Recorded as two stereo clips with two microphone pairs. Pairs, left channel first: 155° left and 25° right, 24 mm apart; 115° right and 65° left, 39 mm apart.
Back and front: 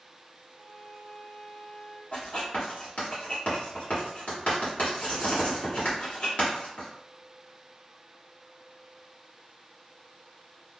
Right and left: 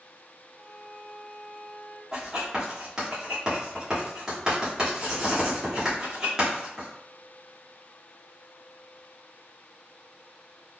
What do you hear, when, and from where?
0.5 s a violin: 80° right, 1.1 m
2.1 s writing: 135° left, 1.5 m